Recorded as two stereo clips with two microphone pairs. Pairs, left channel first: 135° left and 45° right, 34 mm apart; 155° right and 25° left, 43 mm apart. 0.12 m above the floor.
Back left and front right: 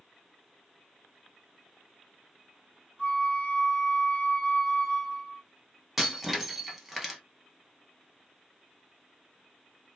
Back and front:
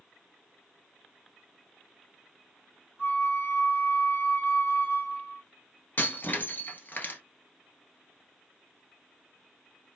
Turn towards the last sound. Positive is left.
turn(degrees=-130)